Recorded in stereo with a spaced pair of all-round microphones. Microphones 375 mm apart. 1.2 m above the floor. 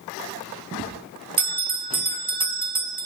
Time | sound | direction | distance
1.4 | a bell | 65° right (ahead or behind) | 1.2 m